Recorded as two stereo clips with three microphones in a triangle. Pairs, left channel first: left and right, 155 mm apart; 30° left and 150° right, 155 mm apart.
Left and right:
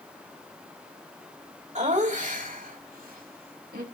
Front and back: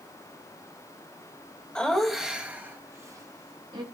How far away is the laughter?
About 2.5 m.